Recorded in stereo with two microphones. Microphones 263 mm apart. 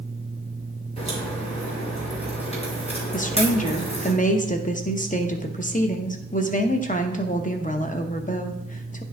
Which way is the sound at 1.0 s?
25° left (ahead or behind).